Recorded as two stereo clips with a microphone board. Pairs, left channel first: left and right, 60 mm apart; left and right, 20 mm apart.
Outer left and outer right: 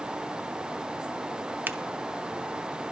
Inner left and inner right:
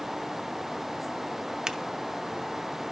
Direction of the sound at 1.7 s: 35° right (ahead or behind).